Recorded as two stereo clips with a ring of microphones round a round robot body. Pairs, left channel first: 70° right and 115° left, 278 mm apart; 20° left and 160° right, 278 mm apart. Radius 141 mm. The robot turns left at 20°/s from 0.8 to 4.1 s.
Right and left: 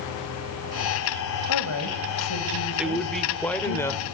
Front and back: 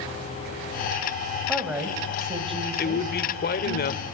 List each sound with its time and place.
1.5 s a woman speaking: 70° right, 2.5 m; by 3.8 s 115° right, 2.5 m
2.8 s a man speaking: 30° left, 1.7 m; by 4.0 s 5° left, 1.7 m